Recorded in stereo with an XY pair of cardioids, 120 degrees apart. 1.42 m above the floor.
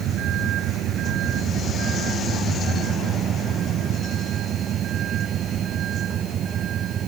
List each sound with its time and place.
0.0 s a vehicle: 65° right; by 7.1 s 55° right